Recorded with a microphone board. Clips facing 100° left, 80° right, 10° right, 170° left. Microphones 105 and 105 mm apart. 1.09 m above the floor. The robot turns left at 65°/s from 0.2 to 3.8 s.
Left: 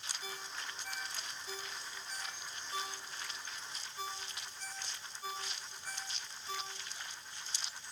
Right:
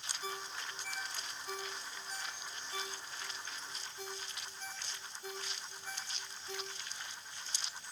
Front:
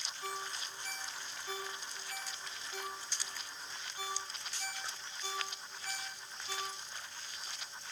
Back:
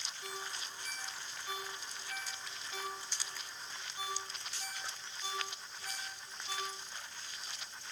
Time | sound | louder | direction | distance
0.2 | a ringtone | right 5 dB, front 3 dB | 35° right | 6.5 m